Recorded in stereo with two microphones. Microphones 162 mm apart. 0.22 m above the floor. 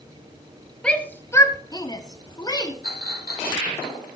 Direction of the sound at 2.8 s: 70° left (ahead or behind).